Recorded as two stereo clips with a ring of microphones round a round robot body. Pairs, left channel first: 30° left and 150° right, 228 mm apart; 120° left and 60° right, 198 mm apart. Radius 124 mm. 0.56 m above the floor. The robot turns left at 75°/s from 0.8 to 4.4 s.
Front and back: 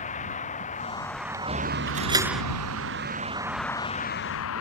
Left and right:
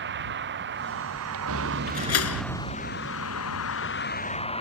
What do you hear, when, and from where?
0.0 s a vehicle: 30° right; by 4.6 s 60° left
1.9 s a door slam: 160° left; by 2.4 s 115° left